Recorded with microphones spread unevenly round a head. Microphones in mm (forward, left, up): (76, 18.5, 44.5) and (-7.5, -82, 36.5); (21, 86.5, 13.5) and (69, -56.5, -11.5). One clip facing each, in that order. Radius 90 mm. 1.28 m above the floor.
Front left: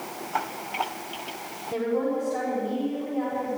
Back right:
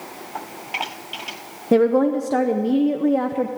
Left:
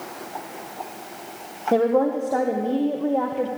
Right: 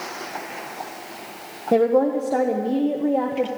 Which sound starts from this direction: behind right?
A woman speaking, at 1.7 s.